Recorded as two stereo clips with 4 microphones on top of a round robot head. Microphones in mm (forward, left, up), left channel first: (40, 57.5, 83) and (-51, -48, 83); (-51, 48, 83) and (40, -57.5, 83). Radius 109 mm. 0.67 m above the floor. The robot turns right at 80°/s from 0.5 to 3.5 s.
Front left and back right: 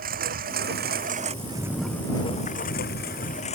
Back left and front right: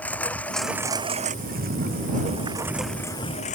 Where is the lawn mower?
150° right; by 3.5 s 95° left.